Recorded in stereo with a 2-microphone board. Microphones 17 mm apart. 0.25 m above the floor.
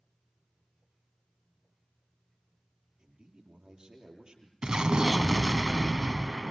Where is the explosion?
65° right (ahead or behind), 0.5 m.